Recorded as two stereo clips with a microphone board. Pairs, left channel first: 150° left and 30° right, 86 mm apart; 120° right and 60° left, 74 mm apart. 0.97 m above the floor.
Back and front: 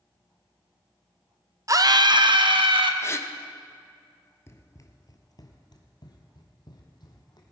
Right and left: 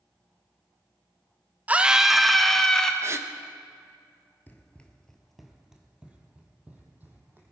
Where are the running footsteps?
170° right, 1.2 m; by 7.5 s 120° left, 2.5 m.